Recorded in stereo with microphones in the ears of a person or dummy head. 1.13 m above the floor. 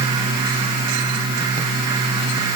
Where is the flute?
No flute in this recording.